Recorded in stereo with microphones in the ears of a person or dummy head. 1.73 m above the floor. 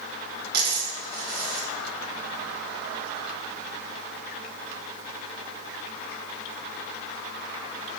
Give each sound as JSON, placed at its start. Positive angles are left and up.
{"t": 0.5, "sound": "a dropped coin", "side_deg": -60, "distance_m": 2.0}